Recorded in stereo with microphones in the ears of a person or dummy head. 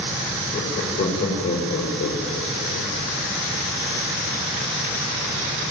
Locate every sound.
0.5 s laughter: 25° left (ahead or behind), 5 m; by 2.9 s 45° left (ahead or behind), 4 m